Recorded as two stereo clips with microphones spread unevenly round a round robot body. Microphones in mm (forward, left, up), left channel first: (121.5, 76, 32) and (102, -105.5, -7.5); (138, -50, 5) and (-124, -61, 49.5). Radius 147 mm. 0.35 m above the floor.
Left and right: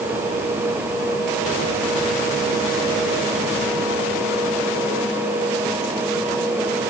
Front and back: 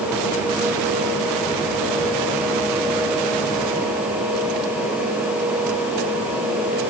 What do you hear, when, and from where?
Only background noise.